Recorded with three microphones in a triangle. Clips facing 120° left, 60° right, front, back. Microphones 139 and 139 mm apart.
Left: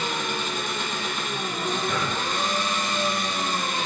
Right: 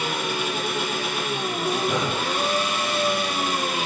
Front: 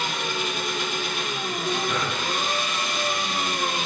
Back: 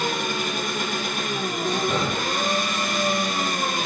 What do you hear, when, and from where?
0.0 s an engine running: 140° right, 3 m
1.9 s breathing: 125° right, 0.9 m